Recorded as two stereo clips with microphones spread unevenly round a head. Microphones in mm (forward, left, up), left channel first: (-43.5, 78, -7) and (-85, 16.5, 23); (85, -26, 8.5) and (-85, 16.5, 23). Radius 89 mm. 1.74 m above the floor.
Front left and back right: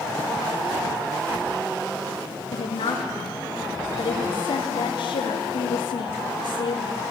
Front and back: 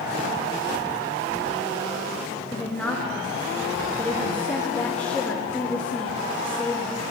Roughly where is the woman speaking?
Left.